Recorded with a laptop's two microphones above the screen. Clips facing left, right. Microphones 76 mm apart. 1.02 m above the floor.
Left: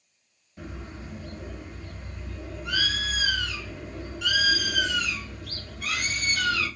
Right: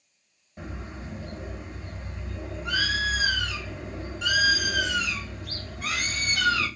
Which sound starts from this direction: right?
A bird, at 0.6 s.